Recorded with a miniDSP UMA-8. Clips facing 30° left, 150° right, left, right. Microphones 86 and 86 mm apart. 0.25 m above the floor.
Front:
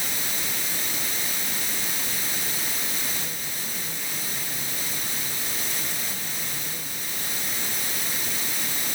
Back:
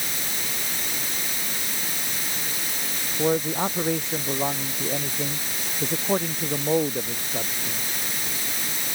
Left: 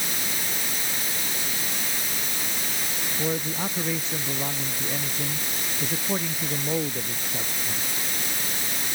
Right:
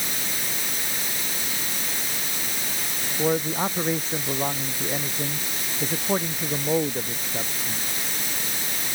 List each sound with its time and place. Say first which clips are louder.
3.2 s a man speaking: back 15 dB, right 6 dB; 140° right; by 7.8 s 150° right